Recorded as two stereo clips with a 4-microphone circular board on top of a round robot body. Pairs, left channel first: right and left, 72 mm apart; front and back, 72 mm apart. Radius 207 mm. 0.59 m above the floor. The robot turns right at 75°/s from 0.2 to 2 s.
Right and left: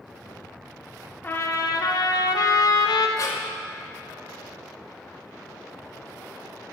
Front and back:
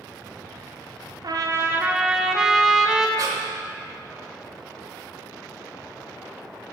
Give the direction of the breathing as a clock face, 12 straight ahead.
5 o'clock.